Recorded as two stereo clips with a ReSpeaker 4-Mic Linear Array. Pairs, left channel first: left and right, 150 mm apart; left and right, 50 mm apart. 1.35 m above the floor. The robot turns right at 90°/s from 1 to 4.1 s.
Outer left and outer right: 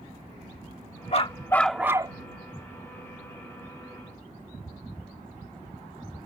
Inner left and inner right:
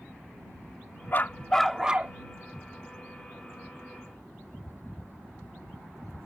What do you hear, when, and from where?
1.1 s a dog barking: 125° left; by 2.1 s 140° right